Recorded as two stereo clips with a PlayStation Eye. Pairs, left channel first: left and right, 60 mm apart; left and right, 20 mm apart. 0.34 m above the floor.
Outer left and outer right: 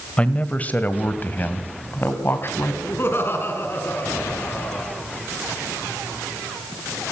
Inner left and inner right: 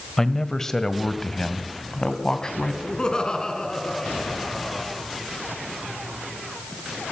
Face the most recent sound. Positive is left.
turn(degrees=40)  # may be behind; listen again after turning